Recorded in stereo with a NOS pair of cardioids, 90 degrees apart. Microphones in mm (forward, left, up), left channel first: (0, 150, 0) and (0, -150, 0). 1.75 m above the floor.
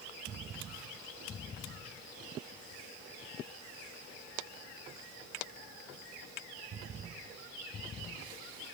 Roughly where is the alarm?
I don't hear an alarm.